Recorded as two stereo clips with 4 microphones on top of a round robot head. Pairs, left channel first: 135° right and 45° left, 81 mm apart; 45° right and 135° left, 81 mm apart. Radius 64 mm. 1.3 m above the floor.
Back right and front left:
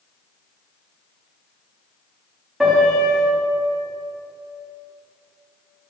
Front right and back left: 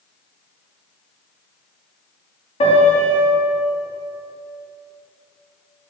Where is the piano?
45° right, 2 m.